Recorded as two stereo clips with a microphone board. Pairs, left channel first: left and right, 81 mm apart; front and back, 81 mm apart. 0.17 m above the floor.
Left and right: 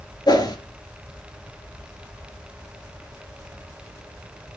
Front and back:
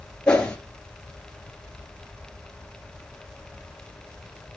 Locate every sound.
0.3 s a whoosh: 80° left, 2 m